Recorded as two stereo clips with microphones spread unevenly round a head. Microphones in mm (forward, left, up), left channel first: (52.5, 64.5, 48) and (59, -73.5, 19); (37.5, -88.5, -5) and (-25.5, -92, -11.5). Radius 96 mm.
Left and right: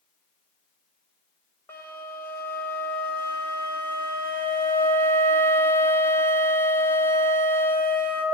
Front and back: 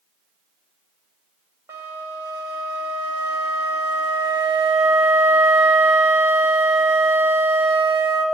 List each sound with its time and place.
1.7 s a flute: 175° left, 1.1 m